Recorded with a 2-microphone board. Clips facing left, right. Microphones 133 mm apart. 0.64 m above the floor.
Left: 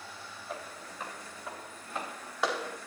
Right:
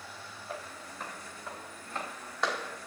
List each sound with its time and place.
0.5 s footsteps: centre (ahead or behind), 6.5 m; by 2.8 s 10° left (ahead or behind), 4 m